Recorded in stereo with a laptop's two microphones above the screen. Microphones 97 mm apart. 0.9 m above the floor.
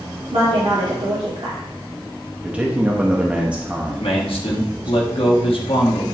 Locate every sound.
0.3 s a woman speaking: 75° right (ahead or behind), 2.5 m
2.4 s a man speaking: 15° right (ahead or behind), 0.7 m
4.0 s a man speaking: 65° left (ahead or behind), 1.6 m